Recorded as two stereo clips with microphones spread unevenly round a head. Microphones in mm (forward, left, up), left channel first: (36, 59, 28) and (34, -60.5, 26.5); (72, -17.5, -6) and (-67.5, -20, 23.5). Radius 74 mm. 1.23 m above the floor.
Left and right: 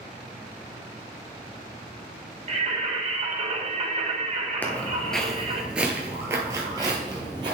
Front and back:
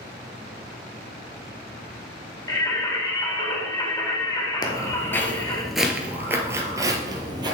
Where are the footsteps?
45° left, 1.2 m; by 7.5 s 145° right, 1.8 m.